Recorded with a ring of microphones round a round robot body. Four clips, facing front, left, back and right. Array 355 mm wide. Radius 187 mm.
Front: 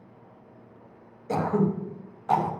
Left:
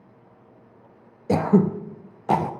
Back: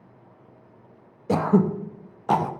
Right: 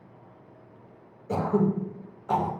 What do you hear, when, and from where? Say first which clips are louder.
1.3 s throat clearing: left 5 dB, back 4 dB; 120° left, 0.7 m